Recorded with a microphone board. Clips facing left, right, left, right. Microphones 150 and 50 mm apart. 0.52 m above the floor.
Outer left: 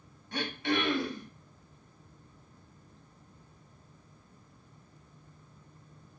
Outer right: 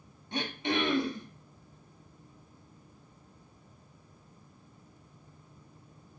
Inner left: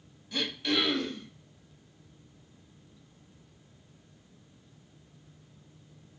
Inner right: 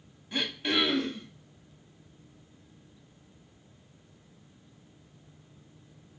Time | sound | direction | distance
0.3 | throat clearing | 20° right (ahead or behind) | 0.7 m